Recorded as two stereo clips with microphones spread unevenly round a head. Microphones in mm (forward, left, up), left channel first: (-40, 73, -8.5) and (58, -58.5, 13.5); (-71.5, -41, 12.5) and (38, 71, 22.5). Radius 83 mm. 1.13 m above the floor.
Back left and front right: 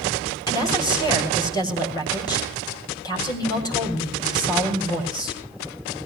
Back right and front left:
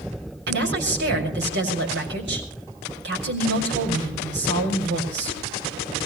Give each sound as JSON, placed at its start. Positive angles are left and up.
{"t": 0.5, "sound": "a woman speaking", "azimuth_deg": 60, "distance_m": 6.5}